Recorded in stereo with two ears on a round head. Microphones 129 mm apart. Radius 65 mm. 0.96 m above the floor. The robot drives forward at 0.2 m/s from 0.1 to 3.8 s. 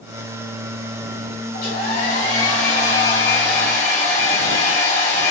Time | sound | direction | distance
1.5 | a hair dryer | 60° left (ahead or behind) | 1.5 m